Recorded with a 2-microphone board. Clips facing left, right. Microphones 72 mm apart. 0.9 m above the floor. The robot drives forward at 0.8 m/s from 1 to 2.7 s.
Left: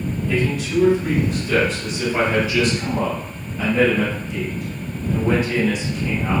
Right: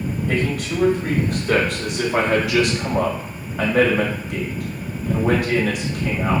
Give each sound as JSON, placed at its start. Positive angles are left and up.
{"t": 0.3, "sound": "a man speaking", "side_deg": -50, "distance_m": 2.0}